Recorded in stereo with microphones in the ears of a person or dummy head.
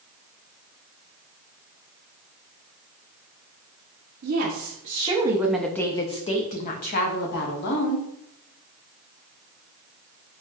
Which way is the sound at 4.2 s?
55° right (ahead or behind).